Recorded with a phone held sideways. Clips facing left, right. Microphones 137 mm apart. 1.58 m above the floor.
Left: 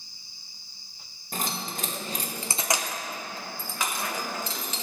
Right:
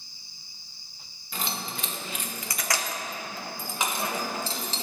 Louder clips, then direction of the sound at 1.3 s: Left 1 dB; 45° left (ahead or behind).